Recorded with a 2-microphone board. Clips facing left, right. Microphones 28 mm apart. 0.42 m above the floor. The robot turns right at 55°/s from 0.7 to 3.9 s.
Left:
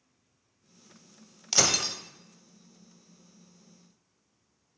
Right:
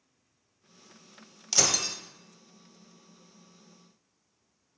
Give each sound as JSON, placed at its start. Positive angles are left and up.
{"t": 1.5, "sound": "breaking glass", "side_deg": 15, "distance_m": 0.6}